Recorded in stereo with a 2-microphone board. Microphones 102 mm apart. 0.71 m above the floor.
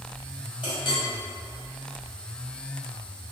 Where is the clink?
55° left (ahead or behind), 1.8 m.